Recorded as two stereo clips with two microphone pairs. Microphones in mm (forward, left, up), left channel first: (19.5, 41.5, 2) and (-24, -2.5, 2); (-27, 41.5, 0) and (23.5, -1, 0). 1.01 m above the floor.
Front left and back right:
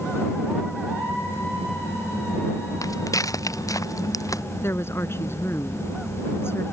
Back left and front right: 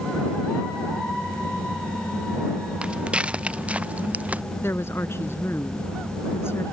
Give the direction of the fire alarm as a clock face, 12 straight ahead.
No fire alarm in this recording.